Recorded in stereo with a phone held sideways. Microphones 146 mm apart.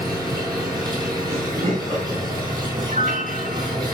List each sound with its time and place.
0.0 s an engine running: 30° right (ahead or behind), 7 m
1.3 s laughter: 40° right (ahead or behind), 5 m
2.9 s a piano: 55° right (ahead or behind), 1.5 m